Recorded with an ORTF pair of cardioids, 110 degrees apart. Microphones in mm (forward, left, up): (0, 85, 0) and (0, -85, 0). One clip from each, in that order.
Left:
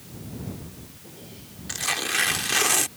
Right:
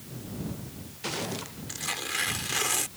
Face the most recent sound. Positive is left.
turn(degrees=35)